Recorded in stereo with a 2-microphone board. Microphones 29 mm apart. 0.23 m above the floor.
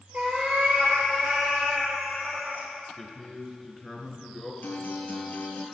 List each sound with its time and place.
0.1 s a cat meowing: 40° right (ahead or behind), 2.5 m; by 2.7 s 60° right (ahead or behind), 4.5 m
3.0 s a man speaking: 20° left (ahead or behind), 3 m
4.6 s a guitar: 75° left (ahead or behind), 3 m